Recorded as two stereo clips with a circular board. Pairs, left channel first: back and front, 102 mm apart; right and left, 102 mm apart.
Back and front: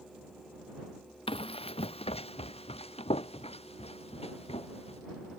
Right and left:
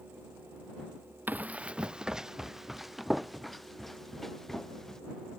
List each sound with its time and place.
1.3 s running footsteps: 160° left; by 5.0 s 175° right